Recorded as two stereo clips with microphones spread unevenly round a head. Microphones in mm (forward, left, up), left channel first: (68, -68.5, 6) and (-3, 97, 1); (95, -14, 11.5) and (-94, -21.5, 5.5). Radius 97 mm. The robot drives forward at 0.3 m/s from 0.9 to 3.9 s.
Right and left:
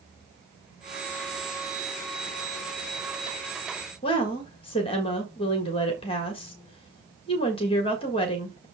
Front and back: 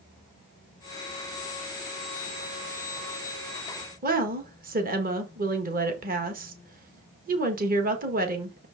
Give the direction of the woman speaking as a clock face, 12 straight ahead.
4 o'clock.